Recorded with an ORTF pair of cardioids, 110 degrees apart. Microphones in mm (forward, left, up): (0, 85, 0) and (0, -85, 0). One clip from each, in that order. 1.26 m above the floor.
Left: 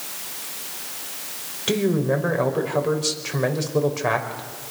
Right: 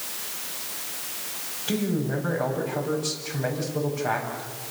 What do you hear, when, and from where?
1.7 s a man speaking: 70° left, 5.5 m